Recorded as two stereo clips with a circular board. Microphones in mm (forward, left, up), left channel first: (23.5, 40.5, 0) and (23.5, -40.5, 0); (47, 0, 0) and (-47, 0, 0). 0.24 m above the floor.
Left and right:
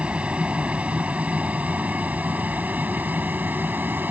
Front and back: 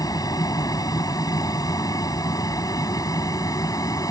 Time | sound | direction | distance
0.0 | an aircraft | 20° right | ?